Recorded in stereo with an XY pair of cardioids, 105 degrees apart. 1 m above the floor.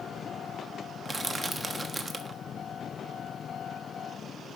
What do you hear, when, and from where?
1.1 s crushing: 20° right, 1.3 m